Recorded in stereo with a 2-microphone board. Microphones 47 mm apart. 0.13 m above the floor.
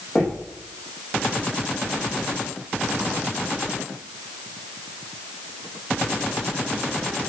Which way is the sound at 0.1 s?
10° left (ahead or behind).